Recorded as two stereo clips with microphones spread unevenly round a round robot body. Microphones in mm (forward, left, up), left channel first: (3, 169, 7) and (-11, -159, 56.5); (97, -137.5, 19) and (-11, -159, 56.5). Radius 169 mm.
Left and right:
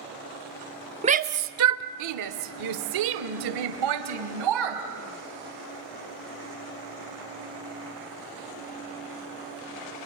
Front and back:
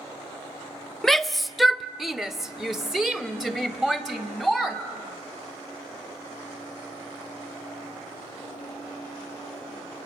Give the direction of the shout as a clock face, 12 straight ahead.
1 o'clock.